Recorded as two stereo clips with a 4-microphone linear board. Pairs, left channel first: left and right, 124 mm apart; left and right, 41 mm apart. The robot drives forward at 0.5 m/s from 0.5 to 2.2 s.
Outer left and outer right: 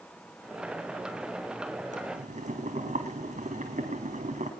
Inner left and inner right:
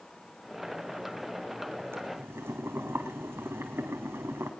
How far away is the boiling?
About 3.5 m.